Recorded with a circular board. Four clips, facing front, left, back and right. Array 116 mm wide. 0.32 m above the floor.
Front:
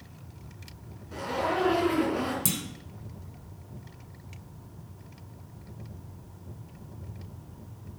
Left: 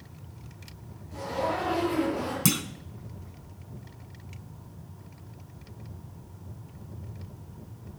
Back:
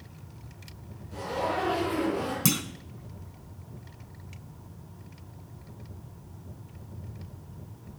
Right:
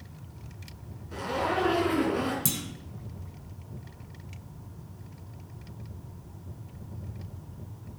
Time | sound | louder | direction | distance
1.1 | a zipper | right 1 dB, front 1 dB | 55° right | 4 m
2.5 | a clunk | left 7 dB, back 6 dB | 130° left | 0.9 m